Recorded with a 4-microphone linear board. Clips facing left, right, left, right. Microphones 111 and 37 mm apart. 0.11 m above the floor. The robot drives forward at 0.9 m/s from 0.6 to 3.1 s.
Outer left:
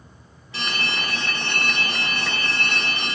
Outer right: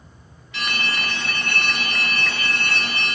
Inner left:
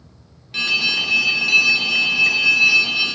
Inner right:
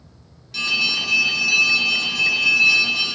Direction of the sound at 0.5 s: 35° left (ahead or behind).